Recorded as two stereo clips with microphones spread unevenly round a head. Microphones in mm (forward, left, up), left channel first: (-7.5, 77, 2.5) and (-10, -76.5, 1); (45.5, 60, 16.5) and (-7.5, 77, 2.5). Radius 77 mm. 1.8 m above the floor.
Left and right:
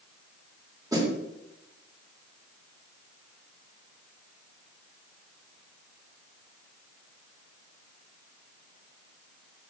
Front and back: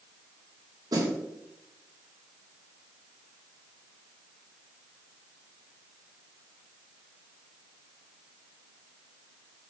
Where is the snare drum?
160° right, 3 m.